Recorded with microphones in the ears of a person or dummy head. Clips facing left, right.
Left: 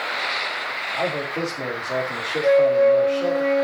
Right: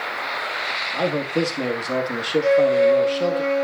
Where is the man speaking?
55° right (ahead or behind), 2 m.